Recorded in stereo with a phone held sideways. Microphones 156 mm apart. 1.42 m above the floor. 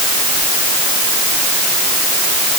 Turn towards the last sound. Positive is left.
No sound to turn to.